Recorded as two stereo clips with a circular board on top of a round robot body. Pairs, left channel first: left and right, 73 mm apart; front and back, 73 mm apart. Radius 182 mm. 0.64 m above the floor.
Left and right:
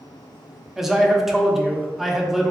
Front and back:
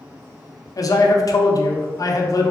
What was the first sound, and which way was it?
A man speaking, 5° right.